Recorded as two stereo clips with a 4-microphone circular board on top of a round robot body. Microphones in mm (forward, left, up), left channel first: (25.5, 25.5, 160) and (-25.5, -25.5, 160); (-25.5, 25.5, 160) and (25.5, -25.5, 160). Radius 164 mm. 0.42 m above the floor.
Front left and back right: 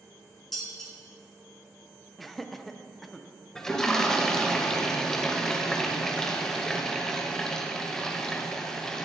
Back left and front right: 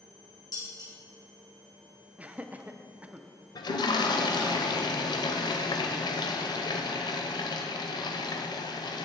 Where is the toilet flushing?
130° left, 0.7 m.